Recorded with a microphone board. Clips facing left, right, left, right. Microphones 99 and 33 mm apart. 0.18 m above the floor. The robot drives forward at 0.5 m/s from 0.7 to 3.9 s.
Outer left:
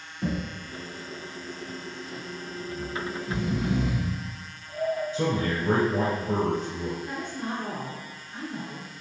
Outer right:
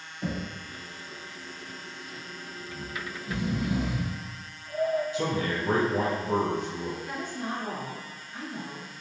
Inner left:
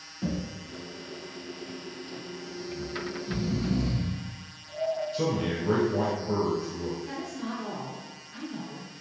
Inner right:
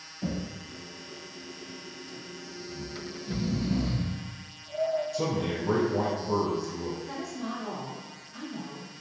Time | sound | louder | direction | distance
0.2 | knocking | outer left 3 dB, inner left 1 dB | 55° left (ahead or behind) | 1.7 m
2.7 | snoring | outer left 6 dB, inner left 5 dB | 15° right (ahead or behind) | 0.7 m
5.1 | a man speaking | outer left 2 dB, inner left 1 dB | 35° left (ahead or behind) | 1.9 m
7.0 | a woman speaking | outer left 1 dB, even | 35° left (ahead or behind) | 1.9 m